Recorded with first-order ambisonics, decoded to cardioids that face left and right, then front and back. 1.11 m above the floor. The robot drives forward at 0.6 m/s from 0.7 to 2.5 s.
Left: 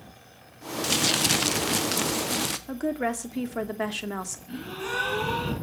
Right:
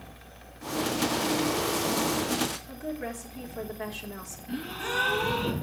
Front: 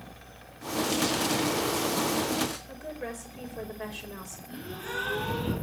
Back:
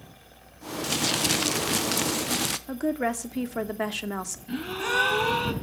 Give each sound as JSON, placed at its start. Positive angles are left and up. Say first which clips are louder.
{"t": 0.8, "sound": "crumpling", "louder": "left 5 dB, back 3 dB", "azimuth_deg": 105, "distance_m": 0.6}
{"t": 2.7, "sound": "a woman speaking", "louder": "left 7 dB, back 10 dB", "azimuth_deg": 145, "distance_m": 2.0}
{"t": 4.5, "sound": "a gasp", "louder": "right 2 dB, back 9 dB", "azimuth_deg": -175, "distance_m": 3.5}